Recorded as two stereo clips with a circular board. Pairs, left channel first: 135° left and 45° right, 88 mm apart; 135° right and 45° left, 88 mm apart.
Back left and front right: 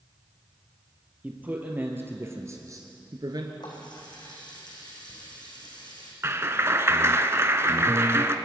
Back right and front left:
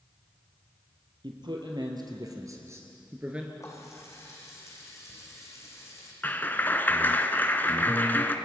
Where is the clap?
80° right, 1.1 m.